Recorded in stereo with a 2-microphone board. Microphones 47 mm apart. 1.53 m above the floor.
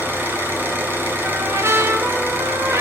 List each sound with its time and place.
0.0 s an engine running: 50° right (ahead or behind), 5 m
1.2 s a trumpet: 70° right (ahead or behind), 2.5 m